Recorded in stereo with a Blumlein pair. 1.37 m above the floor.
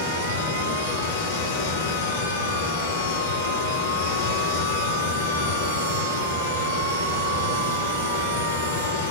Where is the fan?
60° left, 4.5 m.